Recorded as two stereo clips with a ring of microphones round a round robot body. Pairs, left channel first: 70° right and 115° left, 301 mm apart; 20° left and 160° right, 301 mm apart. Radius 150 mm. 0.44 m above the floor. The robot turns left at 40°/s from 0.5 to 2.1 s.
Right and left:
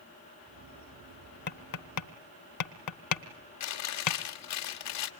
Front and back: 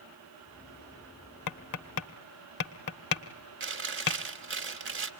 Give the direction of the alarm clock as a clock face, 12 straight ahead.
I don't hear an alarm clock.